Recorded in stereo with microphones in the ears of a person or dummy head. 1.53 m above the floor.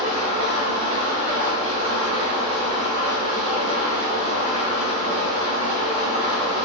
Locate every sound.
0.0 s an engine running: 40° right (ahead or behind), 0.8 m